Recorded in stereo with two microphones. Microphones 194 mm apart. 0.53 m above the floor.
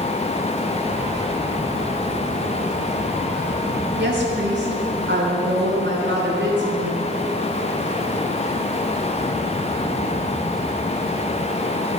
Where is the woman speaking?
70° right (ahead or behind), 3.5 m; by 7.0 s 75° right (ahead or behind), 7 m.